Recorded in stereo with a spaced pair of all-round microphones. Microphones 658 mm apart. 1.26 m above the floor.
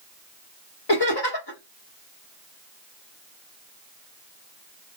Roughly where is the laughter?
Left.